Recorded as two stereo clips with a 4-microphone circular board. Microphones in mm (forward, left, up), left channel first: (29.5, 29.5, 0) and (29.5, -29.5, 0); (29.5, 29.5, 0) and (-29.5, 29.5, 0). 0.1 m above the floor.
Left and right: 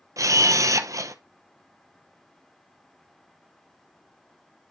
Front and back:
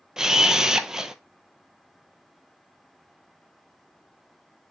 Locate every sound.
0.2 s a camera shutter: 100° right, 0.9 m